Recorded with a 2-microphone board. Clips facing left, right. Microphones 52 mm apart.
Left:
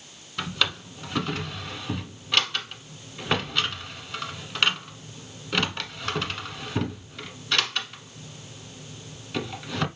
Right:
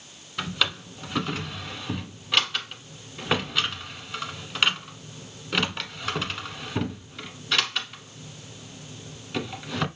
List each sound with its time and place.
0.4 s a drawer: centre (ahead or behind), 0.9 m